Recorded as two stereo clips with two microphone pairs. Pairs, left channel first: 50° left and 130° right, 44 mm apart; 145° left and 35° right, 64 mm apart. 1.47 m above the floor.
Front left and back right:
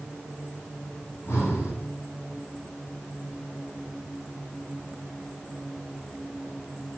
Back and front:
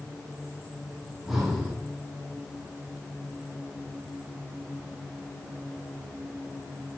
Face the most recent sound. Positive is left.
turn(degrees=50)